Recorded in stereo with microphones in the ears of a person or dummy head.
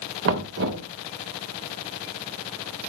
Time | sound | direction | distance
0.2 | knocking | 70° right (ahead or behind) | 1.3 m